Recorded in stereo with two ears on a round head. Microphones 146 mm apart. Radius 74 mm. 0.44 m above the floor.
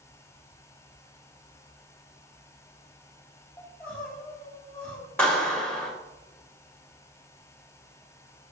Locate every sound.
3.6 s crying: 5° left (ahead or behind), 1.4 m
5.2 s a clap: 5° left (ahead or behind), 1.7 m